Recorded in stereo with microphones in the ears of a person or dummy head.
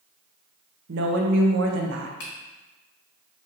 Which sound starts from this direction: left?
A finger snap, at 2.2 s.